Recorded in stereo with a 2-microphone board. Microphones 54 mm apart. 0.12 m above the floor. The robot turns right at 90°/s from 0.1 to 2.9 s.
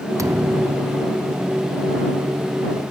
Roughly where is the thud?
Right.